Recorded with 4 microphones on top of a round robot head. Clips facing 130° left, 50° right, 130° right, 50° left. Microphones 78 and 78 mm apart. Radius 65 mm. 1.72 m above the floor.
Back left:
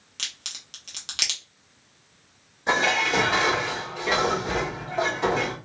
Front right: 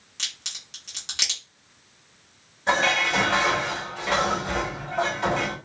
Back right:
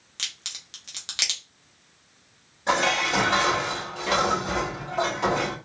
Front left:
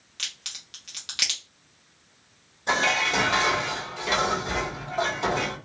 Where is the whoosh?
I don't hear a whoosh.